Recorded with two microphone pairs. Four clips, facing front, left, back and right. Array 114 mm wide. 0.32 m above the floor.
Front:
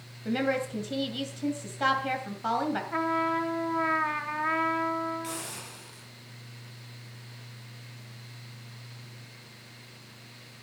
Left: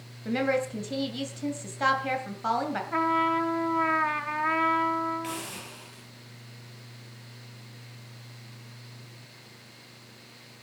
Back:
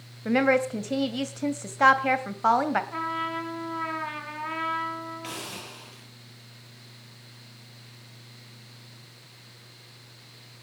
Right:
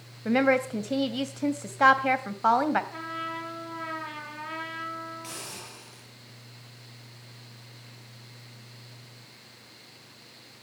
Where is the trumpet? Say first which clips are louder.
Left 11 dB, front 3 dB; 70° left, 2.5 m.